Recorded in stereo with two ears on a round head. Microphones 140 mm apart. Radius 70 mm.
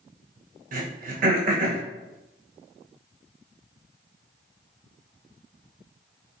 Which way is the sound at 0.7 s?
55° right (ahead or behind).